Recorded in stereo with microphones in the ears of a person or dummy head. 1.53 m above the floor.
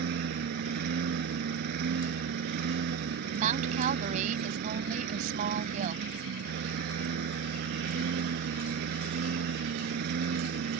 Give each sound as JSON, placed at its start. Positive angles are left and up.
{"t": 0.0, "sound": "a lawn mower", "side_deg": -55}
{"t": 3.3, "sound": "a woman speaking", "side_deg": -40}